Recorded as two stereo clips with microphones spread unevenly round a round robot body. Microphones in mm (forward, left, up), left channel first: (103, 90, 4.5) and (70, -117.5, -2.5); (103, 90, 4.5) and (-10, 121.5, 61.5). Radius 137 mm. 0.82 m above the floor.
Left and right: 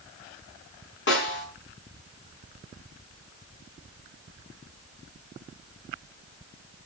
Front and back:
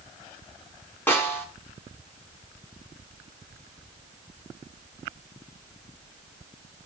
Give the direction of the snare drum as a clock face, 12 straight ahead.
10 o'clock.